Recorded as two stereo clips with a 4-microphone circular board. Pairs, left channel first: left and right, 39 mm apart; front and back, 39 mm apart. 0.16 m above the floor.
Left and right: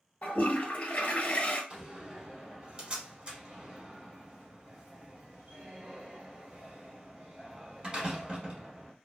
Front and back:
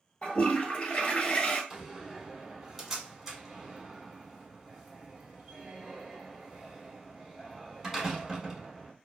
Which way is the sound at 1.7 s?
110° right.